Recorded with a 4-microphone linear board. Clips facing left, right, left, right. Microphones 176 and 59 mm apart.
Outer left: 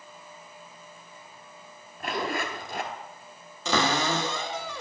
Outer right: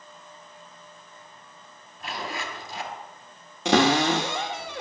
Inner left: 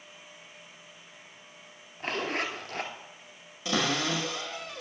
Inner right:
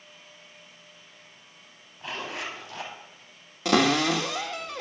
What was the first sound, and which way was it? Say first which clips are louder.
A zipper: outer left 4 dB, inner left 3 dB; 60° left (ahead or behind).